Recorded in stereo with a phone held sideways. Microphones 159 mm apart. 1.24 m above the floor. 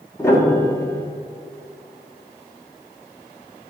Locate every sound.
0.2 s a piano: 15° left (ahead or behind), 1.6 m